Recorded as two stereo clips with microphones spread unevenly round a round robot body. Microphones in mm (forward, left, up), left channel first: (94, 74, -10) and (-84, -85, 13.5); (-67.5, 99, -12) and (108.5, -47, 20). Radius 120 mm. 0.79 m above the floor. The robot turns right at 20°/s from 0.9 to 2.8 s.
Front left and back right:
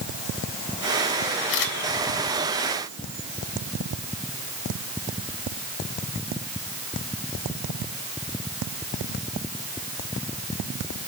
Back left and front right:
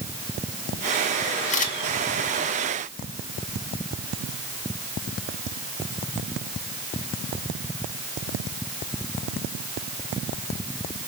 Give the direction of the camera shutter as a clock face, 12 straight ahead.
9 o'clock.